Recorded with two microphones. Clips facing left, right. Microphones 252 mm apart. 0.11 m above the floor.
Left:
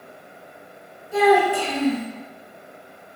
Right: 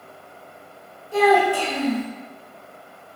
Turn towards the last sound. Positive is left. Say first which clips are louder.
# left 1 dB
turn(degrees=25)  # may be behind; listen again after turning